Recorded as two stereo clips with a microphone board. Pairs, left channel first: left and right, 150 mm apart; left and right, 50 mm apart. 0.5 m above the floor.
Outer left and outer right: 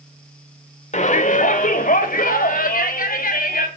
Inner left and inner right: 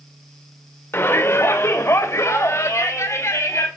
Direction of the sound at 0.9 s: 50° left (ahead or behind).